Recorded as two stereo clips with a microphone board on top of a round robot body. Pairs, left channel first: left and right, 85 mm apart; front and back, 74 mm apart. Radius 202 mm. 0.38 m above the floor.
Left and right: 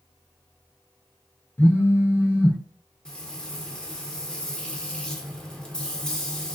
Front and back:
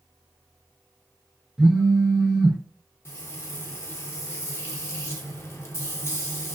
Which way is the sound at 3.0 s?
15° left.